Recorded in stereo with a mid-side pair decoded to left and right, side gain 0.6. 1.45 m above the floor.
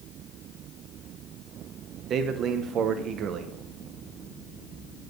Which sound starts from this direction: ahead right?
A man speaking, at 2.1 s.